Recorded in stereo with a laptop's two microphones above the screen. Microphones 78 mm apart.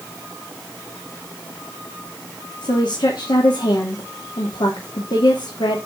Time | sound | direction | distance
2.6 | a woman speaking | 75° left (ahead or behind) | 2.5 m